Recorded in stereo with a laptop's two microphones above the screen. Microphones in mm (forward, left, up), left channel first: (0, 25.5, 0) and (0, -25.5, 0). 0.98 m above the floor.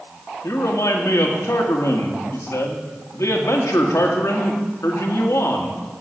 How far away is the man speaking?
About 1.7 m.